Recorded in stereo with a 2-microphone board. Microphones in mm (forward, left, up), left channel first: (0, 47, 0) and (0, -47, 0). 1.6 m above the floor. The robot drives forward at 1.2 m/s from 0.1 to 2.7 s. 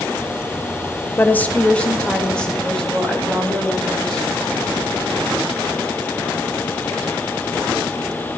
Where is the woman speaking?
20° left (ahead or behind), 1.0 m; by 4.3 s 5° left (ahead or behind), 3 m.